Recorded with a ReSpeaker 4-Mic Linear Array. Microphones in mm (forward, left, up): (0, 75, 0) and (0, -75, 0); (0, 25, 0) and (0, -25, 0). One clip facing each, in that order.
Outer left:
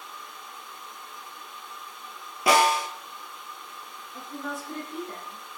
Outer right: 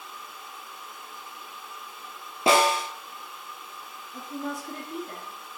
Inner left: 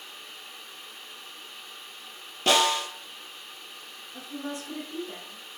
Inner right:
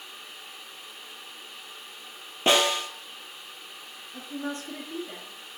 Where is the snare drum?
25° right (ahead or behind), 0.8 m.